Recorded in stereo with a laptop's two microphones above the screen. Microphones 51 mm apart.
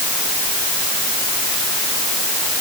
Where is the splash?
No splash in this recording.